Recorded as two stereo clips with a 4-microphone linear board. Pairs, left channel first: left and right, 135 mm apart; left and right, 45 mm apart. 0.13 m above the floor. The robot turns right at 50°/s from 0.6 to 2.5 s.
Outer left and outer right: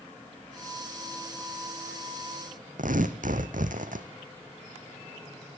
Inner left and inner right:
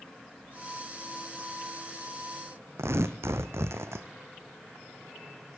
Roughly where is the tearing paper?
Right.